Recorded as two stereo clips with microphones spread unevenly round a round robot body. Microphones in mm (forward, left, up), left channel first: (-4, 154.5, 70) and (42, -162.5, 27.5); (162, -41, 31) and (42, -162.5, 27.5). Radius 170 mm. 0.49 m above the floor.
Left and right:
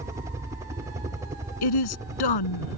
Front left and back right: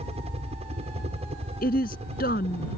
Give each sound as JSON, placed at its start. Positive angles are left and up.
{"t": 0.0, "sound": "a helicopter", "azimuth_deg": -145}
{"t": 1.6, "sound": "a woman speaking", "azimuth_deg": 105}